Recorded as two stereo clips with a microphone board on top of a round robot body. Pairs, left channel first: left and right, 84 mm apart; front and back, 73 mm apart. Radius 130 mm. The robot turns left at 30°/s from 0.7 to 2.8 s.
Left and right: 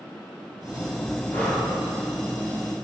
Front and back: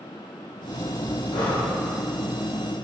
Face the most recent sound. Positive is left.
turn(degrees=-25)